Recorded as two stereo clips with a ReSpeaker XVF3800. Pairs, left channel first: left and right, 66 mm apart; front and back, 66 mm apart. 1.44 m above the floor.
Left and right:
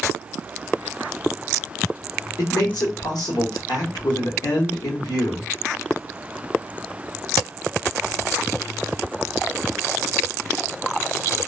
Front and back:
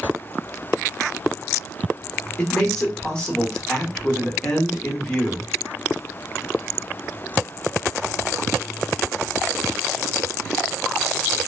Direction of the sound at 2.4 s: 75° left.